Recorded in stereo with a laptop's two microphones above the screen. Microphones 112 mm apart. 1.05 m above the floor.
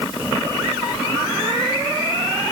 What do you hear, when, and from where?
Only background noise.